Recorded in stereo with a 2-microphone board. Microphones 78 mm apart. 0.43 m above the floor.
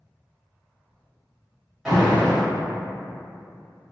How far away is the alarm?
About 1.3 m.